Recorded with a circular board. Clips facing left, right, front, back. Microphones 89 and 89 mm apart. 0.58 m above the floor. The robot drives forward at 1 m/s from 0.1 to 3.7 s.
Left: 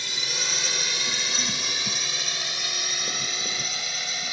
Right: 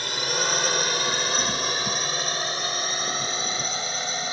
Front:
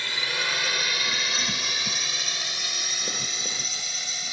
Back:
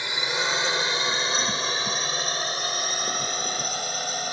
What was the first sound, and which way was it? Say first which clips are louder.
A drone: right 7 dB, back 3 dB; 110° right.